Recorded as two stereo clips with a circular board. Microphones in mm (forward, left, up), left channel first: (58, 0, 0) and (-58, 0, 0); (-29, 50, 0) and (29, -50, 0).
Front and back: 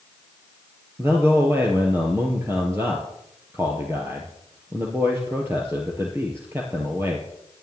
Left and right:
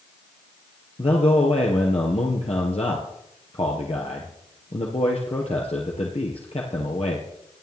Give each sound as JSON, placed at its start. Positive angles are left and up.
{"t": 1.0, "sound": "a man speaking", "azimuth_deg": 115, "distance_m": 2.5}